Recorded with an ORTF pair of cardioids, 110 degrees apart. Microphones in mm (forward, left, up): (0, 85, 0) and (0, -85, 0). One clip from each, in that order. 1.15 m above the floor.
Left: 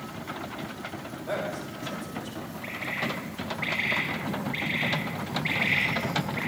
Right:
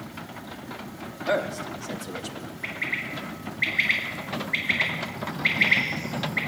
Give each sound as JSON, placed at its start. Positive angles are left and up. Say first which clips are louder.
{"t": 1.3, "sound": "a man speaking", "louder": "right 6 dB", "azimuth_deg": -70, "distance_m": 2.5}
{"t": 2.6, "sound": "a bird", "louder": "right 2 dB", "azimuth_deg": -55, "distance_m": 7.5}